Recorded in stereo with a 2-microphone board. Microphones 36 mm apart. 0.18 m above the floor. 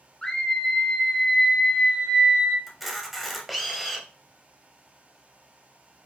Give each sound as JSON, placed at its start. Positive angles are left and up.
{"t": 0.2, "sound": "a scream", "side_deg": 20, "distance_m": 1.1}
{"t": 2.7, "sound": "a camera shutter", "side_deg": -5, "distance_m": 1.1}